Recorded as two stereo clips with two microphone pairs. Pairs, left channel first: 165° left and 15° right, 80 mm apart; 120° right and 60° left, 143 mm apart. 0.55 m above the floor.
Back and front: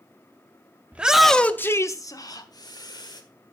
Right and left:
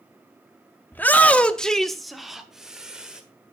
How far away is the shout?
About 0.7 m.